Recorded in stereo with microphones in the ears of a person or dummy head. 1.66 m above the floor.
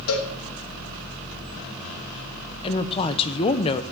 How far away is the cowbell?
About 3 m.